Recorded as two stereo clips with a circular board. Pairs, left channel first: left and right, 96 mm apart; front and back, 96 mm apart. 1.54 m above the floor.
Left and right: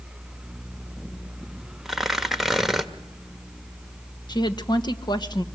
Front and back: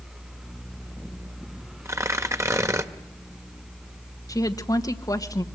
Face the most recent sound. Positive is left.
turn(degrees=50)